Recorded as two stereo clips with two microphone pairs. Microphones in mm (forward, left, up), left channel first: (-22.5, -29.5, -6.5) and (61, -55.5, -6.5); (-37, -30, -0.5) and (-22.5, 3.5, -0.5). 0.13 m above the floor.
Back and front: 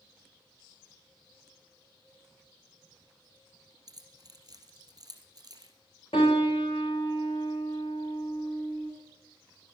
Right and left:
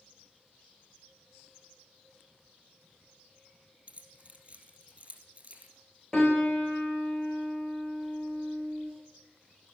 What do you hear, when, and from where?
3.9 s keys jangling: 25° left, 2.5 m
6.1 s a piano: 165° left, 6 m